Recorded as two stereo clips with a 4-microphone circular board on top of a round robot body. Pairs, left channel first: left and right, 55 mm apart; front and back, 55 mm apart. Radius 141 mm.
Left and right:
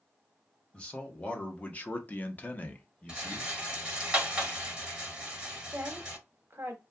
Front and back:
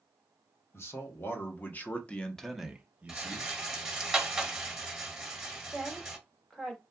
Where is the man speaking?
25° left, 1.2 m; by 3.5 s 155° left, 0.8 m.